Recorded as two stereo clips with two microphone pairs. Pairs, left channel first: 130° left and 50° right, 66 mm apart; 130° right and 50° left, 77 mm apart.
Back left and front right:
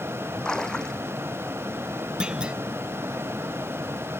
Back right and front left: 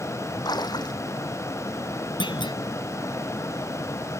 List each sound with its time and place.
0.5 s a splash: 155° right
2.2 s a clunk: 130° right